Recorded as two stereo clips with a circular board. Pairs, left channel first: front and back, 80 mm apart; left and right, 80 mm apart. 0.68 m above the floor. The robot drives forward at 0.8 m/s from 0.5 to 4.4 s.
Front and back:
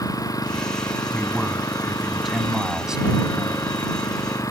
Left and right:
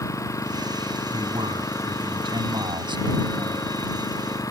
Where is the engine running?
40° left; by 4.5 s 45° left.